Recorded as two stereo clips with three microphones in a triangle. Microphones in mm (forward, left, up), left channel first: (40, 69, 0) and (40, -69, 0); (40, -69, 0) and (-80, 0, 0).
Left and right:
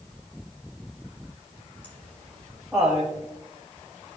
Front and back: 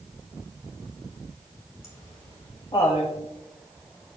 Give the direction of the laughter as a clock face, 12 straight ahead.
11 o'clock.